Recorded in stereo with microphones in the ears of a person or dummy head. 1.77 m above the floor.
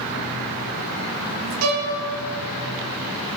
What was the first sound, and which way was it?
A violin, 80° right.